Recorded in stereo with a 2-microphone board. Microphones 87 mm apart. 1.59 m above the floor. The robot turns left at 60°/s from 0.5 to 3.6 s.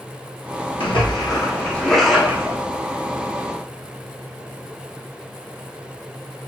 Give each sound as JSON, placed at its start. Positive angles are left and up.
{"t": 0.8, "sound": "a splash", "azimuth_deg": 75, "distance_m": 1.3}